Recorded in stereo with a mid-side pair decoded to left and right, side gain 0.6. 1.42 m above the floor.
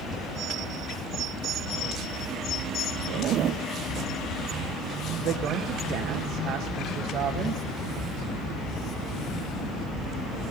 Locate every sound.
3.1 s a zipper: 55° right, 0.8 m
5.2 s a woman speaking: 55° right, 1.5 m